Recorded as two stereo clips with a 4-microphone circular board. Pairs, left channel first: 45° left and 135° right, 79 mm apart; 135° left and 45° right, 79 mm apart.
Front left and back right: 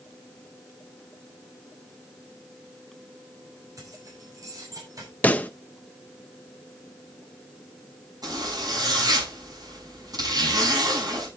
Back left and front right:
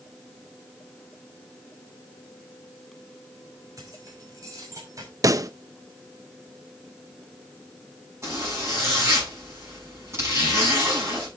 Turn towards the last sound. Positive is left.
turn(degrees=-100)